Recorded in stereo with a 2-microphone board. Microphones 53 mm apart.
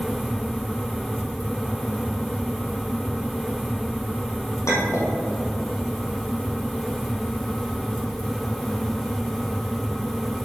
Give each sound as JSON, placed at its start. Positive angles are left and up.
{"t": 4.7, "sound": "a clink", "side_deg": 70, "distance_m": 3.0}